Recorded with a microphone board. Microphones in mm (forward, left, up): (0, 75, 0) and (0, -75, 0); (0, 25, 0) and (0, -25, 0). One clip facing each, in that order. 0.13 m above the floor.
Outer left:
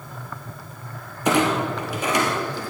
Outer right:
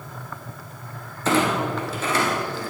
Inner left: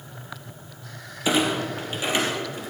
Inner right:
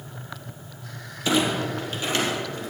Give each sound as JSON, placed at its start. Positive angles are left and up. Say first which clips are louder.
{"t": 1.2, "sound": "a clunk", "louder": "outer left 1 dB, even", "side_deg": 15, "distance_m": 2.5}